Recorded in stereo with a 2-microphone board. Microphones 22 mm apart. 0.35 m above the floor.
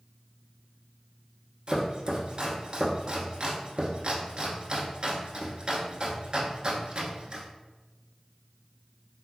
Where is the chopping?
45° right (ahead or behind), 0.7 m.